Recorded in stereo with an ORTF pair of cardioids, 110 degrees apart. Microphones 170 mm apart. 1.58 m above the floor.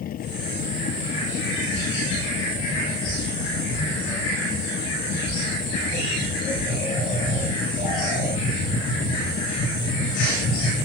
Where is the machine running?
60° left.